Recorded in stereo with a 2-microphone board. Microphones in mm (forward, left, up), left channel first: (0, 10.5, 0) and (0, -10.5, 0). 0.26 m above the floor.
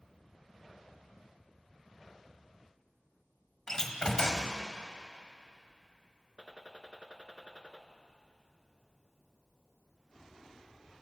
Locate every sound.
3.7 s a door slam: 30° left (ahead or behind), 1.1 m
6.4 s a gunshot: 40° right (ahead or behind), 0.8 m